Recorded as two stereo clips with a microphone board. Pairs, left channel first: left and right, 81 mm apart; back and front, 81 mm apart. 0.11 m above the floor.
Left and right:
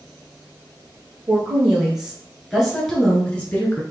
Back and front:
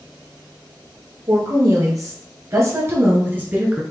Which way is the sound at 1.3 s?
15° right.